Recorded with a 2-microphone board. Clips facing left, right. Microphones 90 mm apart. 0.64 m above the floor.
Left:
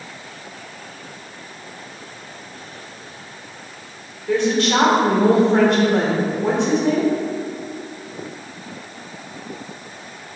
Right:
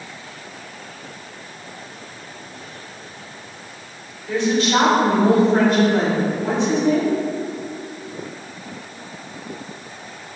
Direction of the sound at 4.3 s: 65° left (ahead or behind).